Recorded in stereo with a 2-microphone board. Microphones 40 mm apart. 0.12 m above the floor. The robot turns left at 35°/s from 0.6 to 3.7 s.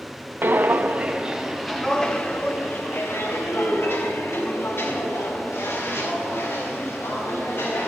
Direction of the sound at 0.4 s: 55° right (ahead or behind).